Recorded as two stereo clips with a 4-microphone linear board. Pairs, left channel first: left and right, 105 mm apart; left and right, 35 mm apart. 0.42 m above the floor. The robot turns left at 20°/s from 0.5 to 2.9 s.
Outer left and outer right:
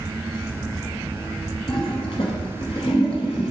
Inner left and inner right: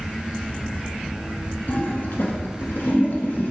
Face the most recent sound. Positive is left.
turn(degrees=70)  # may be behind; listen again after turning